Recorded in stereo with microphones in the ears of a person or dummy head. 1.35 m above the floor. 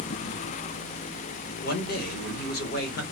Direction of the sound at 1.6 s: 65° left (ahead or behind).